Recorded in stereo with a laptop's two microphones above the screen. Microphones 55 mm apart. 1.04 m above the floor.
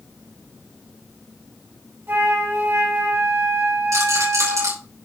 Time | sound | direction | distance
2.1 | a flute | 45° right (ahead or behind) | 2 m
3.9 | a rattle | 80° right | 5 m